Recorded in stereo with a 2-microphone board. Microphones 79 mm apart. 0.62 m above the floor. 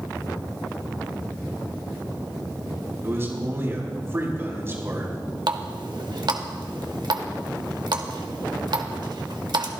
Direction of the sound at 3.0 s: 35° right (ahead or behind).